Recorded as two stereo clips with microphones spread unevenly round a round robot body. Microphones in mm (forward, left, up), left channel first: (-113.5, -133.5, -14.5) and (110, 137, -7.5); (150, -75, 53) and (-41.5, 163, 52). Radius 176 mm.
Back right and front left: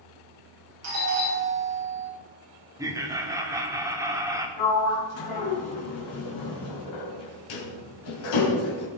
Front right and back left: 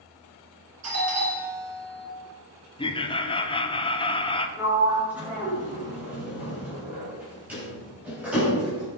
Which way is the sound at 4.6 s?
145° right.